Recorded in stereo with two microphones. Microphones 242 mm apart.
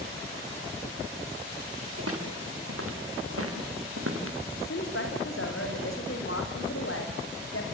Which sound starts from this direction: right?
Footsteps, at 2.0 s.